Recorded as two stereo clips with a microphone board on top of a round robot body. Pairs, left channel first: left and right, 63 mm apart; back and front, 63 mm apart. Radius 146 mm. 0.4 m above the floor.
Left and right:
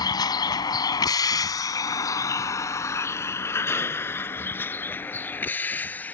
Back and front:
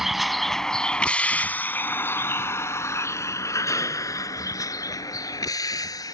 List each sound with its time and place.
0.0 s a vehicle: 85° left; by 6.1 s 155° left